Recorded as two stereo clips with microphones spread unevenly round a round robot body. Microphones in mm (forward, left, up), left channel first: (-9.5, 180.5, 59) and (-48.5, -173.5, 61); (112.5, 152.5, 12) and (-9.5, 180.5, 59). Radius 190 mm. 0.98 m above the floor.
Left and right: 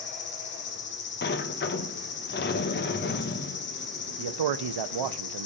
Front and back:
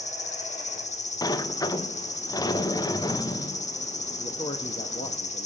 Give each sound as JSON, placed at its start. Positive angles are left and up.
{"t": 0.0, "sound": "an insect", "azimuth_deg": 20, "distance_m": 1.4}
{"t": 1.2, "sound": "a sliding door", "azimuth_deg": 25, "distance_m": 1.0}
{"t": 4.2, "sound": "a man speaking", "azimuth_deg": -70, "distance_m": 0.8}